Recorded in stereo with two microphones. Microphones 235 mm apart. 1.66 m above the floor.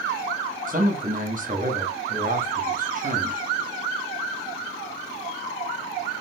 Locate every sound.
0.7 s a man speaking: 35° right (ahead or behind), 0.7 m